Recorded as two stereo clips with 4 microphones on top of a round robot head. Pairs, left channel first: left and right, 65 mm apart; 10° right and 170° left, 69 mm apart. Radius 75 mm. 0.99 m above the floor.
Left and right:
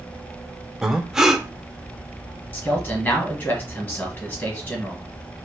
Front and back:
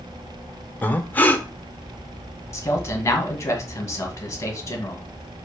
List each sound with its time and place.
0.8 s breathing: 15° right, 0.6 m
2.5 s a man speaking: 35° left, 1.4 m